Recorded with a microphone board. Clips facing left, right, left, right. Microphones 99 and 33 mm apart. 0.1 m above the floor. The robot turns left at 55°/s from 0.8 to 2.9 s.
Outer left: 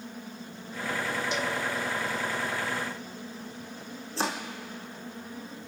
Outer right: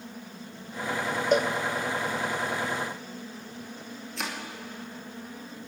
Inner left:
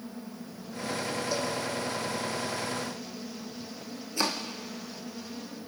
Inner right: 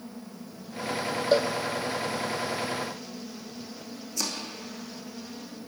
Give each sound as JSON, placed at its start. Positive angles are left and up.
{"t": 1.3, "sound": "a cowbell", "side_deg": -50, "distance_m": 1.1}
{"t": 4.2, "sound": "chopping", "side_deg": 30, "distance_m": 1.9}